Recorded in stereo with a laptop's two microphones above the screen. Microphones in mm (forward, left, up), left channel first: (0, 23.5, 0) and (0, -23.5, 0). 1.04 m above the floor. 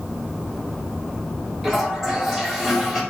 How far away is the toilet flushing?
About 1.3 m.